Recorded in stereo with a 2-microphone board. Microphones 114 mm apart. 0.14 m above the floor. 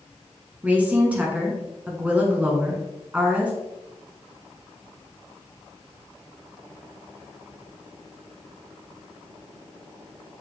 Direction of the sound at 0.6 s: 15° right (ahead or behind).